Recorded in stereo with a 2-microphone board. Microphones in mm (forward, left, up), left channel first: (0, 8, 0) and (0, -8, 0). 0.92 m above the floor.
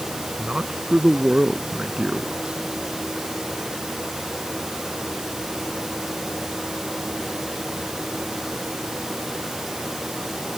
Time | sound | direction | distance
0.4 | a man speaking | 60° right (ahead or behind) | ?